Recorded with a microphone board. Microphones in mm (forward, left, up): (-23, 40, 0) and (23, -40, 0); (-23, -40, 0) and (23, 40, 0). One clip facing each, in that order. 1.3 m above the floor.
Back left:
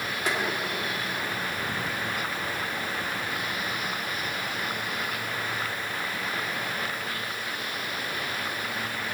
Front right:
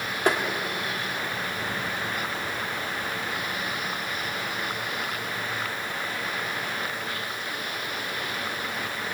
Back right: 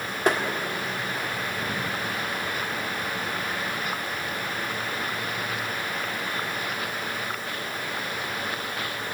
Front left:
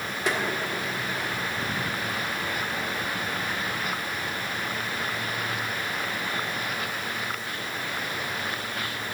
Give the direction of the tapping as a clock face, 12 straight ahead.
3 o'clock.